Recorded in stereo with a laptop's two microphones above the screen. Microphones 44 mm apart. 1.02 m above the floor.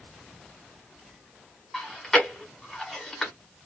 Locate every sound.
1.7 s chewing: 10° left (ahead or behind), 1.1 m